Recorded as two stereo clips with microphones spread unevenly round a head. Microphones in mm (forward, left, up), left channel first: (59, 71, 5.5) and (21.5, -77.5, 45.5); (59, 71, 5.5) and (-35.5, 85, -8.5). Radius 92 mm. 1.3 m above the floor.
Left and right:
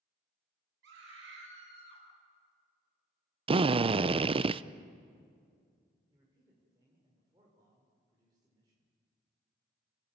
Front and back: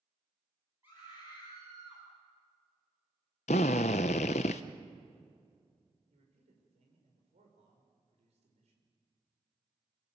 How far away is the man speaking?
About 5.5 m.